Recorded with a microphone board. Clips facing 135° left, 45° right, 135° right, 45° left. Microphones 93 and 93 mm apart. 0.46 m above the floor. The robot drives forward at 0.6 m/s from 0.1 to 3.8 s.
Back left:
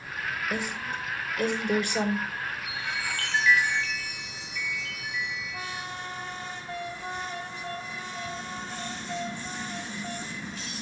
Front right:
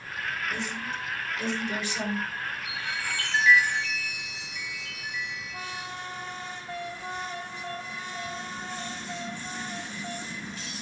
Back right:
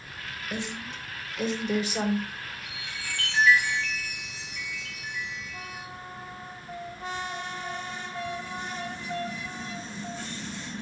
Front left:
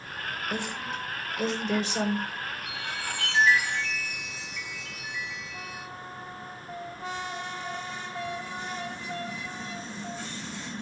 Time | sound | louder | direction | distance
0.5 | a woman speaking | back left 1 dB, even | 115° left | 1.9 m
2.6 | a chime | even, front left 4 dB | 105° right | 5 m